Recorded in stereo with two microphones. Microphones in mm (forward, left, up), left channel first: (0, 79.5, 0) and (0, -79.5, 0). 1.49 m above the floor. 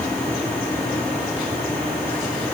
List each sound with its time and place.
Only background noise.